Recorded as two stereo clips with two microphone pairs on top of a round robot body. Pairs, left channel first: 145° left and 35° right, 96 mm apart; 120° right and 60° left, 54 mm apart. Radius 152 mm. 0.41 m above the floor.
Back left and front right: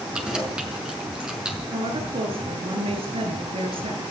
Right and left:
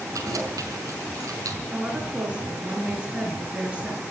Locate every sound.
0.1 s keys jangling: 50° left, 5.5 m
1.7 s a woman speaking: 10° right, 7.5 m